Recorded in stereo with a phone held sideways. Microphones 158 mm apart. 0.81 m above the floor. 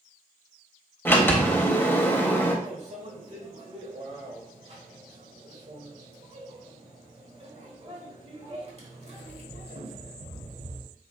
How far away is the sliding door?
About 0.6 m.